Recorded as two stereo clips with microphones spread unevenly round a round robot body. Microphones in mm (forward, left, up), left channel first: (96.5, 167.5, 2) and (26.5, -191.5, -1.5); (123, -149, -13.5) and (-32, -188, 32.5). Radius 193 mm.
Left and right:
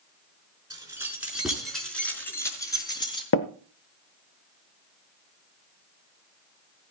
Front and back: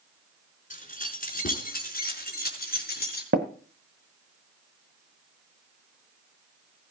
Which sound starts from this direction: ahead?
Keys jangling, at 0.7 s.